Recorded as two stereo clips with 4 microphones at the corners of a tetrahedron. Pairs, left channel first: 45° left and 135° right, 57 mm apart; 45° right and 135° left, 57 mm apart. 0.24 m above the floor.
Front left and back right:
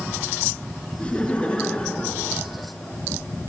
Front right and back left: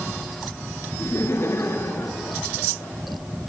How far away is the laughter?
About 3 m.